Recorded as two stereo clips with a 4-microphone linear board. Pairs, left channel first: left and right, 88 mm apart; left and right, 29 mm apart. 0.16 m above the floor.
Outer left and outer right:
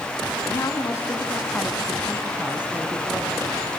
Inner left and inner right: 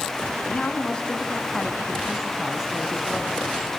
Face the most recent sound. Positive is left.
turn(degrees=-35)  # may be behind; listen again after turning